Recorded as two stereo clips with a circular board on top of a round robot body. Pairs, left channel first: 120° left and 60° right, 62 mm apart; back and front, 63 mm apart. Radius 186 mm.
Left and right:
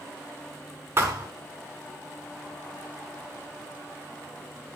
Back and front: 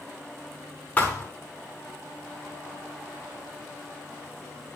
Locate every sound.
1.0 s a thud: 110° right, 0.9 m